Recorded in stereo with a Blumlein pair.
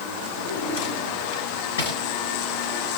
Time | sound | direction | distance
0.4 | a drawer | 55° left | 7 m